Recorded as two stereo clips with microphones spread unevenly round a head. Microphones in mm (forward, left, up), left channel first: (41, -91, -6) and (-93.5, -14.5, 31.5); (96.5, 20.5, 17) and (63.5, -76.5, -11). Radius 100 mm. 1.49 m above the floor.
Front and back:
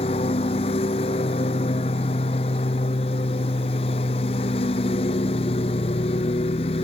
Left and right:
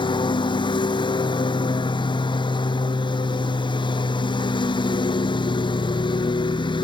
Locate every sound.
0.0 s a lawn mower: 35° left